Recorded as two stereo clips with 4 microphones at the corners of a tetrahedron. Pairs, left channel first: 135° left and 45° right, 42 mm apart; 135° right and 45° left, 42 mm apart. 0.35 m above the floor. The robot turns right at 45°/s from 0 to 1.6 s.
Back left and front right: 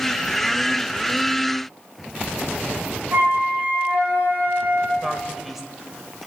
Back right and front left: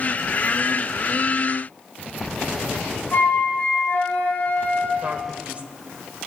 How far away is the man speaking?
About 1.3 m.